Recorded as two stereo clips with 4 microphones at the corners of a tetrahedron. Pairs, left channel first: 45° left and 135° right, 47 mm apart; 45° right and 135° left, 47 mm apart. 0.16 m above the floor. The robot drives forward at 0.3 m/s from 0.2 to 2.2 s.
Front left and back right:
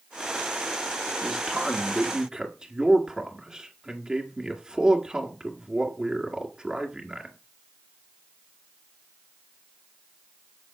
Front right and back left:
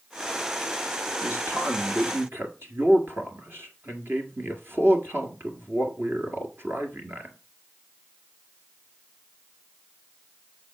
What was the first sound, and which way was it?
A man speaking, 150° left.